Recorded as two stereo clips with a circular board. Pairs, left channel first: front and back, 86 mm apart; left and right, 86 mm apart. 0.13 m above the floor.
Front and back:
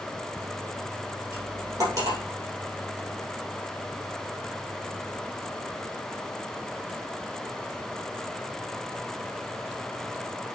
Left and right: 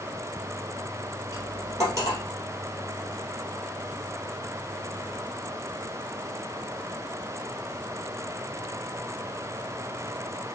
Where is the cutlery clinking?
140° right, 2.5 m.